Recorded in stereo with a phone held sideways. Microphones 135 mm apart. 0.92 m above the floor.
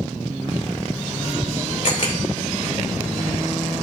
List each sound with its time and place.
1.8 s a camera shutter: 60° left (ahead or behind), 2.5 m